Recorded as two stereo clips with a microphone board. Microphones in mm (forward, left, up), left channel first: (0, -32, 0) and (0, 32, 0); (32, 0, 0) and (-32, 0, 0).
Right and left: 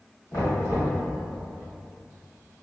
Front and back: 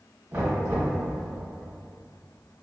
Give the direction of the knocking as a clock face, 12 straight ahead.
5 o'clock.